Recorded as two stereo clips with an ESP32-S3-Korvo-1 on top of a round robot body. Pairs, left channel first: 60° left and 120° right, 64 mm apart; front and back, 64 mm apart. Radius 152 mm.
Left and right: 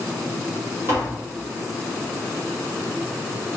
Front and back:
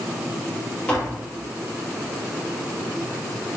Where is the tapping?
70° right, 4.5 m.